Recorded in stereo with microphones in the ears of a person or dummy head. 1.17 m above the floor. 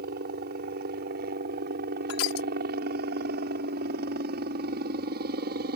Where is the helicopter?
50° right (ahead or behind).